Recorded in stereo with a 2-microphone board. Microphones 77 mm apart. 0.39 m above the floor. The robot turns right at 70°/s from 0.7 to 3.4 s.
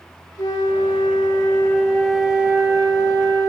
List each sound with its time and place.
0.4 s a flute: 75° left, 3.5 m; by 3.5 s 95° right, 3.5 m